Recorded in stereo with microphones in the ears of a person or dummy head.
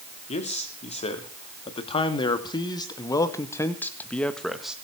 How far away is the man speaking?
About 3.5 m.